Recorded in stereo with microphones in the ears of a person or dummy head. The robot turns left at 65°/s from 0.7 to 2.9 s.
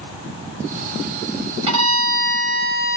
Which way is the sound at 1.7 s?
150° right.